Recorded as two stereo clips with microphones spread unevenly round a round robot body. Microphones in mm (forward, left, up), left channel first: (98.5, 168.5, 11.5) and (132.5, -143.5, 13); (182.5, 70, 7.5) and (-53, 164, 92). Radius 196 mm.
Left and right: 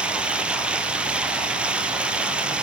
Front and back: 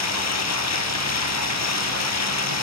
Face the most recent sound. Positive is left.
turn(degrees=5)